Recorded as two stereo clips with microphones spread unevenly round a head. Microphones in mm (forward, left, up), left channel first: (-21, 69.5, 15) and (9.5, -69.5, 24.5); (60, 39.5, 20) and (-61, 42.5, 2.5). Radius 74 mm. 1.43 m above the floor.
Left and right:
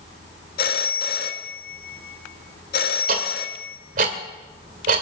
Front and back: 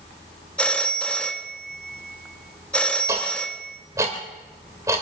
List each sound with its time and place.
0.6 s a phone ringing: 75° left, 1.5 m
3.1 s ticking: 105° right, 2.5 m